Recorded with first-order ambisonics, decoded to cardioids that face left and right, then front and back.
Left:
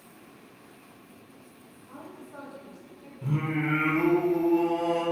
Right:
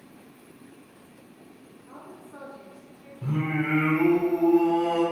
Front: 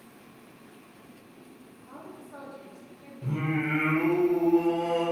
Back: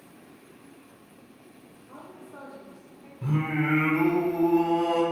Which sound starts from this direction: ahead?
A woman speaking, at 1.9 s.